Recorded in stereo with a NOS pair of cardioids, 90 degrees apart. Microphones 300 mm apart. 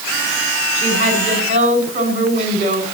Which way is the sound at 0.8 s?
25° right.